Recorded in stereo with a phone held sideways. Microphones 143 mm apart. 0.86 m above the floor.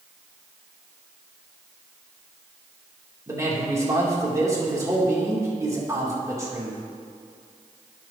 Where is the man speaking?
25° right (ahead or behind), 2.5 m.